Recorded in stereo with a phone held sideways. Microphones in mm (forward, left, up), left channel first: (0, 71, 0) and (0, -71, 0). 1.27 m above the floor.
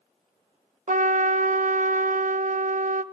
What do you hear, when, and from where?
0.9 s a trumpet: 65° right (ahead or behind), 0.6 m